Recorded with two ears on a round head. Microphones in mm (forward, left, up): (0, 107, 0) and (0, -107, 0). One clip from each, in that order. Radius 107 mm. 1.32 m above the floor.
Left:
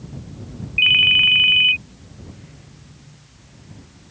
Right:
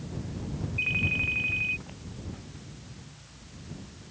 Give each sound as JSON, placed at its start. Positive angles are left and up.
{"t": 0.8, "sound": "a ringtone", "side_deg": 70}